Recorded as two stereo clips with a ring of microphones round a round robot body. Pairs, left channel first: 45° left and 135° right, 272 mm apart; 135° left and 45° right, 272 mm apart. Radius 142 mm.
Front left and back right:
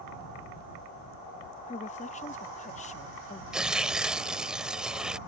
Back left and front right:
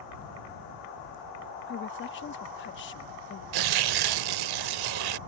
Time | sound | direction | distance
1.7 | a woman speaking | 105° left | ?
3.5 | tearing paper | 50° right | ?